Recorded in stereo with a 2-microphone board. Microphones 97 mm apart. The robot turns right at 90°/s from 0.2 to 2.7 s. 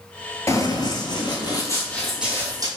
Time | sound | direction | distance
0.5 | running footsteps | 30° left (ahead or behind) | 0.7 m